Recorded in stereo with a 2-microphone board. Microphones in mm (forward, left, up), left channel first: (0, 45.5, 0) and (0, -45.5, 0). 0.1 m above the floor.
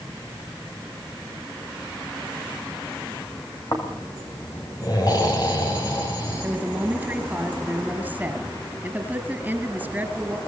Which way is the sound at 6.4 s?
15° right (ahead or behind).